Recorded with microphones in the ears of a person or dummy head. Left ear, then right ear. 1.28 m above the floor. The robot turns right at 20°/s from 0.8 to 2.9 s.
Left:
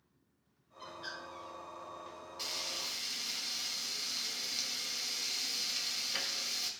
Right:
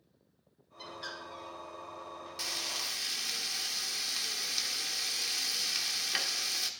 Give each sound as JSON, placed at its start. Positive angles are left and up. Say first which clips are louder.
{"t": 0.8, "sound": "a bird", "louder": "right 2 dB", "side_deg": -80, "distance_m": 5.0}
{"t": 2.4, "sound": "frying", "louder": "right 3 dB", "side_deg": -55, "distance_m": 1.4}